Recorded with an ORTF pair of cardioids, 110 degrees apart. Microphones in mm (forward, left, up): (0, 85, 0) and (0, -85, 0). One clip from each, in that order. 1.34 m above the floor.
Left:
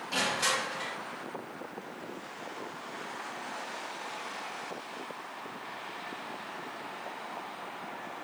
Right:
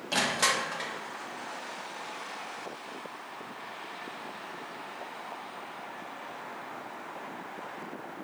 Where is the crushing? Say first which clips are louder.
Right 2 dB; 40° right, 0.8 m.